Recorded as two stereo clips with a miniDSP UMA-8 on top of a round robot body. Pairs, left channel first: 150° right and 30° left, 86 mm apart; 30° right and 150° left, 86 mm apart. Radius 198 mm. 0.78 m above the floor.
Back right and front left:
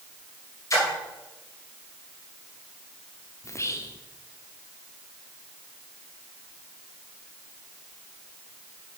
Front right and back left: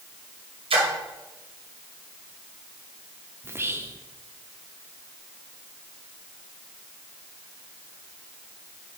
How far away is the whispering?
About 0.9 m.